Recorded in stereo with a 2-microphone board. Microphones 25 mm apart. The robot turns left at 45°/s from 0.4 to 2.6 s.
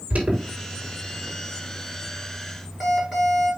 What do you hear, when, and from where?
0.1 s an alarm: 75° right (ahead or behind), 5 m; by 3.5 s 5° left (ahead or behind), 5 m